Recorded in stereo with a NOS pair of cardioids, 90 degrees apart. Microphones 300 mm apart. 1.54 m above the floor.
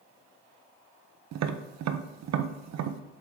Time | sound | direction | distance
1.3 | tapping | 65° right | 0.7 m